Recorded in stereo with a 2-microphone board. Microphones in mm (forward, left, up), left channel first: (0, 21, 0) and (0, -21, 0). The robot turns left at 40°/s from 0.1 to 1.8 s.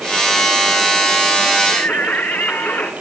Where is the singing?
55° left (ahead or behind), 2.5 m; by 2.9 s 50° left (ahead or behind), 2.5 m.